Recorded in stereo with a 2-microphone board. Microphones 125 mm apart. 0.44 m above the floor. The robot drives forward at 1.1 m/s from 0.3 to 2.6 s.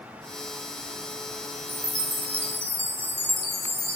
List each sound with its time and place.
1.7 s a chime: 30° right (ahead or behind), 1.8 m; by 4.0 s 20° right (ahead or behind), 2.5 m